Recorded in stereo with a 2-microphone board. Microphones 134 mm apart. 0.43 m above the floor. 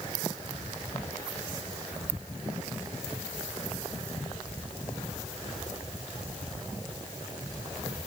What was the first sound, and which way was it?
Only background noise.